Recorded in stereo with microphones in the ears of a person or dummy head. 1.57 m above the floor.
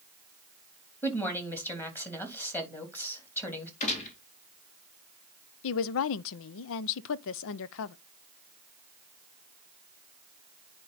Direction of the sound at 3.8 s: 35° left (ahead or behind).